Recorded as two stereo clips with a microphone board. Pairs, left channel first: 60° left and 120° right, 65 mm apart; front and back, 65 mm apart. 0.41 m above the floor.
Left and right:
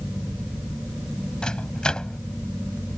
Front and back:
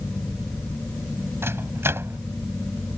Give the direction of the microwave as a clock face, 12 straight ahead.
8 o'clock.